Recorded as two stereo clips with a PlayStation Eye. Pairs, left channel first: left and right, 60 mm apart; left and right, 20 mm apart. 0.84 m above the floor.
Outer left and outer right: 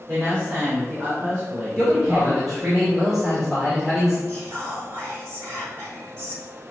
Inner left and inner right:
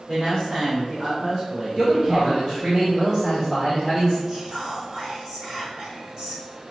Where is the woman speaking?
35° right (ahead or behind), 3 m.